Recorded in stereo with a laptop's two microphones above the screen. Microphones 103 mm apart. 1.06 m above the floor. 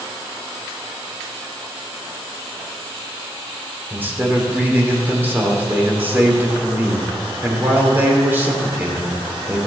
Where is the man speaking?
20° right (ahead or behind), 2.5 m.